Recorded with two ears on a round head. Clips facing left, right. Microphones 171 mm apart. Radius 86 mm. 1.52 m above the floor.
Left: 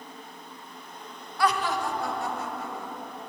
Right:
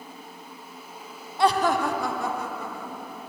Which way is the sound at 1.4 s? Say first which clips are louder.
Right 5 dB; 20° right (ahead or behind).